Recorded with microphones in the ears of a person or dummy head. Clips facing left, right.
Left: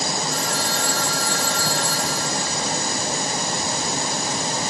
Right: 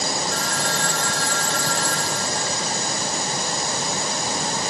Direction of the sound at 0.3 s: 5° left (ahead or behind).